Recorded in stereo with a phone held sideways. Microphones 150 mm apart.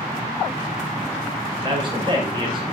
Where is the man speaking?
35° right (ahead or behind), 4.5 m.